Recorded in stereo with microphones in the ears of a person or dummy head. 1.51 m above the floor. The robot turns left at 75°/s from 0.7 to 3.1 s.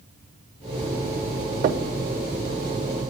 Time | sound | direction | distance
1.6 | knocking | 40° right (ahead or behind) | 0.5 m